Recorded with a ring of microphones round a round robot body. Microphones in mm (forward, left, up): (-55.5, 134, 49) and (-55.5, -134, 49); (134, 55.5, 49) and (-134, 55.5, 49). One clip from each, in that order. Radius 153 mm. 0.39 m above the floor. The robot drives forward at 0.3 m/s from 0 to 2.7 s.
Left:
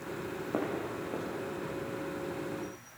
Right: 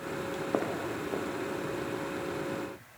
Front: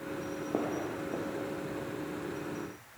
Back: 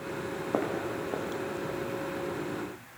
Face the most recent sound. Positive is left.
turn(degrees=-160)